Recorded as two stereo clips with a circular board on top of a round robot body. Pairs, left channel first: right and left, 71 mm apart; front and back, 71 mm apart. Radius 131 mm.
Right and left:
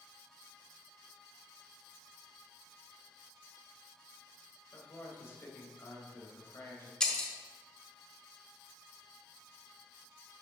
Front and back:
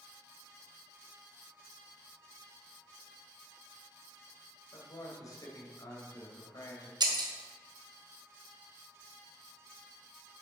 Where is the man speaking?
35° right, 2.5 m.